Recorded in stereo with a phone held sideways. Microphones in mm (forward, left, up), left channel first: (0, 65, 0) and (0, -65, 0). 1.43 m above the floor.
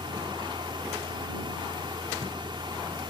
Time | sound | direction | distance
0.0 | a fan | 40° right (ahead or behind) | ?